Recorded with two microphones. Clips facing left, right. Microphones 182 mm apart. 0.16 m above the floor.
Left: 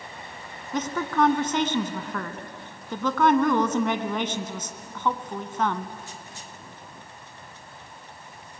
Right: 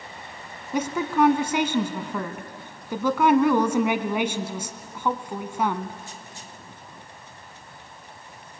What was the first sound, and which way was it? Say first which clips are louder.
A woman speaking: right 2 dB; 10° right (ahead or behind).